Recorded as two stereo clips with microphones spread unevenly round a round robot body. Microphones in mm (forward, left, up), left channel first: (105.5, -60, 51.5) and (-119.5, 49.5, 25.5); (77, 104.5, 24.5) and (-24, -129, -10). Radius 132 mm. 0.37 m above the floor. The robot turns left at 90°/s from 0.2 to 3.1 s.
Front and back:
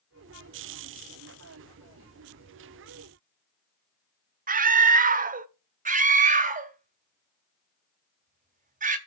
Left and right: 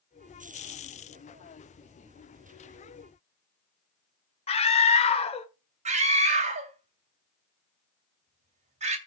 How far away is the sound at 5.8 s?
About 1.9 m.